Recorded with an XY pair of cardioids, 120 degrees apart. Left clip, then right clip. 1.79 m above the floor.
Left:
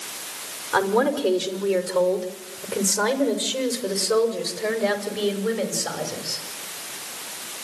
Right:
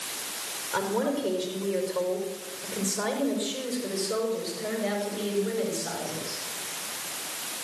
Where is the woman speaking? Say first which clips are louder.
Left 7 dB; 70° left, 4.5 m; by 6.4 s 75° left, 7.5 m.